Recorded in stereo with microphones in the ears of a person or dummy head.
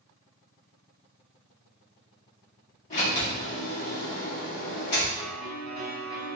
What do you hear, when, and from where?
2.9 s a sliding door: 45° left (ahead or behind), 1.5 m
5.2 s a piano: 20° left (ahead or behind), 1.9 m